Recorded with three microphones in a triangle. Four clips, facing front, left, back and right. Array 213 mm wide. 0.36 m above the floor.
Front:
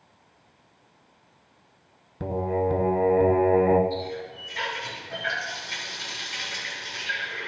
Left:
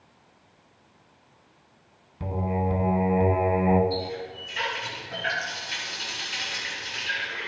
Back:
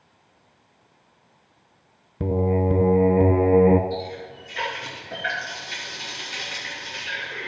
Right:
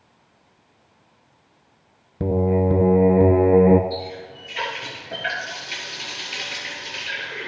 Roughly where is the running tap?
Behind right.